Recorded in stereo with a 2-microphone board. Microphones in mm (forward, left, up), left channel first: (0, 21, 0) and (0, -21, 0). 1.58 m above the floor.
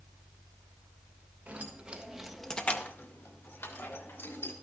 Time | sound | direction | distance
1.5 | keys jangling | 30° right (ahead or behind) | 1.6 m